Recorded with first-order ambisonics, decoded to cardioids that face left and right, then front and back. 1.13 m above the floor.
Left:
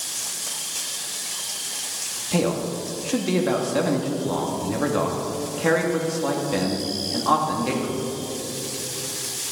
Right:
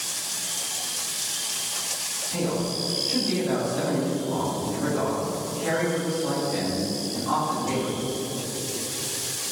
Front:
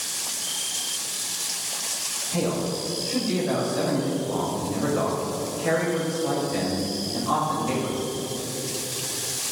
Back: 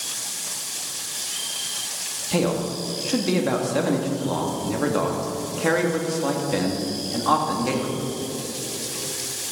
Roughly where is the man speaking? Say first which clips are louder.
Left 5 dB, back 4 dB; behind left.